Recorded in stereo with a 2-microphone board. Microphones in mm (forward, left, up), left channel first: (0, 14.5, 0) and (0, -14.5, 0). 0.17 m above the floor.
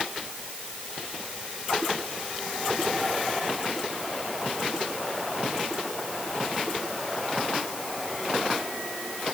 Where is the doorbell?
I don't hear a doorbell.